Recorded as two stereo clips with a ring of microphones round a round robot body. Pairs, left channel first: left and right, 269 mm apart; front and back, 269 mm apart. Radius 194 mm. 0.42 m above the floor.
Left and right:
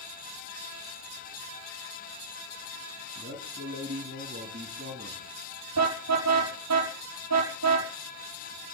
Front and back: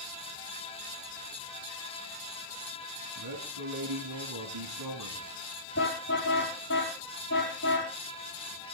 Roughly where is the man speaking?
Behind.